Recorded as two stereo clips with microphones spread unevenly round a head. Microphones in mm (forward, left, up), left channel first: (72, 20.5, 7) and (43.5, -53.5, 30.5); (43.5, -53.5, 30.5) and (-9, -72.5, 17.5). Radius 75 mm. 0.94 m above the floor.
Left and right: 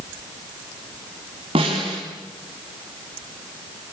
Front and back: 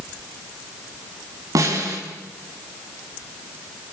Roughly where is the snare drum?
Behind right.